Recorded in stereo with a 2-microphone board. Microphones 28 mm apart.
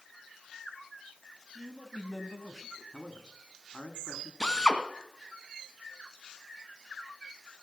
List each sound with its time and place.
1.6 s a man speaking: 15° right (ahead or behind), 1.6 m; by 2.8 s 15° left (ahead or behind), 1.9 m
2.9 s a man speaking: 60° left (ahead or behind), 1.8 m
4.4 s a drill: 20° left (ahead or behind), 1.6 m